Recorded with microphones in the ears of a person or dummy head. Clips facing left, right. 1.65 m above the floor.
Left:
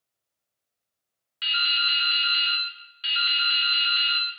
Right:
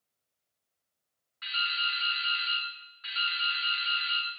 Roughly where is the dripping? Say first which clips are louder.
Left 4 dB; left.